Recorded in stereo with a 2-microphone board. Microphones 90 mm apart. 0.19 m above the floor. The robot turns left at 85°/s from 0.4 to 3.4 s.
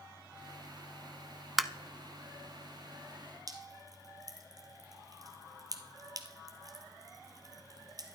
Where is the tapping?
Centre (ahead or behind), 0.5 m; by 1.7 s 5° left (ahead or behind), 0.5 m.